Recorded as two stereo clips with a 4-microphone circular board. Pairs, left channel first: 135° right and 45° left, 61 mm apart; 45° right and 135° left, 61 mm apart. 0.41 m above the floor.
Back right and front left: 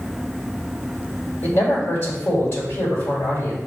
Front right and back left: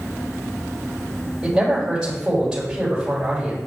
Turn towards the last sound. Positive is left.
turn(degrees=-155)